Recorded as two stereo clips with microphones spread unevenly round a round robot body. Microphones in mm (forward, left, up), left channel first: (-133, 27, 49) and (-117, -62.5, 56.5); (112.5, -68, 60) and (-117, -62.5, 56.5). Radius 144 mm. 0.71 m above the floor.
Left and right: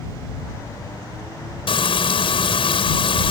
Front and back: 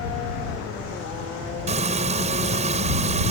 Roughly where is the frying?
Behind left.